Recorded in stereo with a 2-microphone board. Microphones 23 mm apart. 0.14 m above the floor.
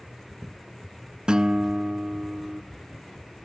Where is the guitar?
45° right (ahead or behind), 0.6 m.